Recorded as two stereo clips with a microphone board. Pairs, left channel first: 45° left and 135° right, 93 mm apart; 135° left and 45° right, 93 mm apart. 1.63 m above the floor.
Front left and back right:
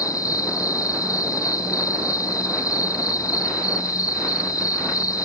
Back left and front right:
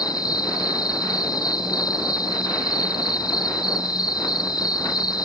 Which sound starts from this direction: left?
An insect, at 0.0 s.